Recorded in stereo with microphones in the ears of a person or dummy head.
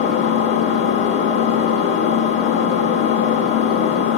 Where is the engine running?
50° left (ahead or behind), 1.2 m.